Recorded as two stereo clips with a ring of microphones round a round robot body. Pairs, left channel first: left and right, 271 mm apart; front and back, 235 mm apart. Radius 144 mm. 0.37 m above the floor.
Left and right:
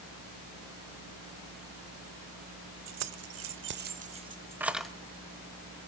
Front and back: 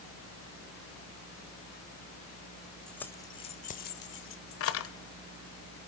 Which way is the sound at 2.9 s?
85° right.